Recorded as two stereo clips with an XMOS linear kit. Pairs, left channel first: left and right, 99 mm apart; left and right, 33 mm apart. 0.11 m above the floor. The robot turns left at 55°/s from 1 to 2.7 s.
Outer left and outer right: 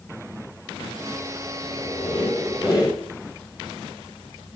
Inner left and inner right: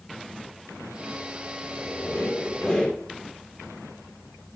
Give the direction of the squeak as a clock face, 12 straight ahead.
9 o'clock.